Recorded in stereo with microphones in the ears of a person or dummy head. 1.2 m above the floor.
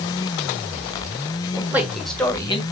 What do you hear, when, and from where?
1.6 s a man speaking: 10° right (ahead or behind), 2 m; by 2.6 s 30° left (ahead or behind), 1.4 m